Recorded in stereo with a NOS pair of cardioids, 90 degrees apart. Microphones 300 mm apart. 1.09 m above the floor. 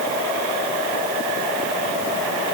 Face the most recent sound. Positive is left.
No sound to turn to.